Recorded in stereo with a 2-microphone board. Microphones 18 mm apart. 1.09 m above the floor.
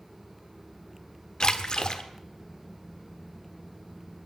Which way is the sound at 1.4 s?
55° left (ahead or behind).